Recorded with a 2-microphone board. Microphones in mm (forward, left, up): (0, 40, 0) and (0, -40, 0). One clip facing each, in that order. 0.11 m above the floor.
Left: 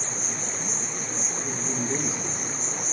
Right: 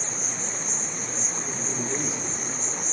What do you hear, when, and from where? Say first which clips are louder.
0.0 s an insect: even; 15° left (ahead or behind), 2.5 m
1.4 s a man speaking: left 2 dB; 40° left (ahead or behind), 2 m